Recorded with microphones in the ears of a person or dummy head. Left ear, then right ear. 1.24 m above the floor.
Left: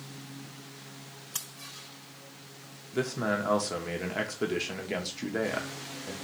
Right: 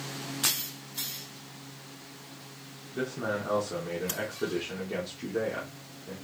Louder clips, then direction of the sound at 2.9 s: Left 2 dB; 70° left (ahead or behind).